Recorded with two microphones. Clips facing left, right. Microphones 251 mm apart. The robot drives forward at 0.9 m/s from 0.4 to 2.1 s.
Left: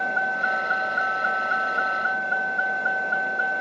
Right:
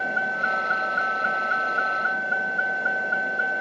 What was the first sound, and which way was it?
A vehicle, 30° right (ahead or behind).